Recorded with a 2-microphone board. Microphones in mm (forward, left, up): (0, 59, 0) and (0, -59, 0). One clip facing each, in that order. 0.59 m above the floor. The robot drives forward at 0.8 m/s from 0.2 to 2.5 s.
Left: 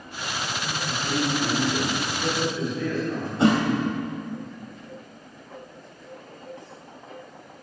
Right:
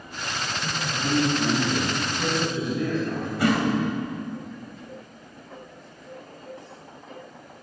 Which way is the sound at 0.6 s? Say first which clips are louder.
Right 4 dB; 75° right (ahead or behind).